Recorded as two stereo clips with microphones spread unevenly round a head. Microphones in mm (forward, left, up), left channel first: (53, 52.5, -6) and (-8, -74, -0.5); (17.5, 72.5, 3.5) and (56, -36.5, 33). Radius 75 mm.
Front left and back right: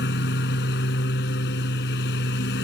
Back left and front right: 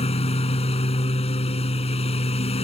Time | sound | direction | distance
0.0 | a lawn mower | 70° left | ?